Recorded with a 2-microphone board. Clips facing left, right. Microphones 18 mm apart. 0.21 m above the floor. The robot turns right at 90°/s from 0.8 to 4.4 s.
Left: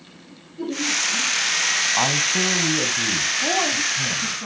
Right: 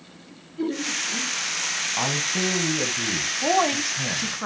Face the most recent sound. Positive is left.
turn(degrees=-65)